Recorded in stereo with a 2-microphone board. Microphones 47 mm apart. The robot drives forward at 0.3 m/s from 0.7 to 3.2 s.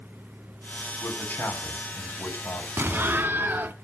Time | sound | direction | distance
1.0 | a man speaking | 50° left (ahead or behind) | 2.5 m
2.8 | an explosion | 50° right (ahead or behind) | 0.7 m